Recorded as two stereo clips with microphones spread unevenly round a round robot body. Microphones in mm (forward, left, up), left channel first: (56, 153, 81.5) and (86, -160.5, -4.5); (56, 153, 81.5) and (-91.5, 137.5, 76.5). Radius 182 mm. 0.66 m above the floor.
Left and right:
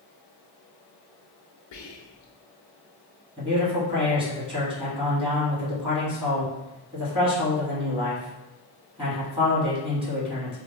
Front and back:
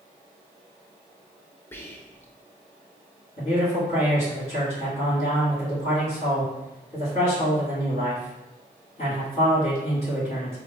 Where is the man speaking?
30° right, 1.5 m.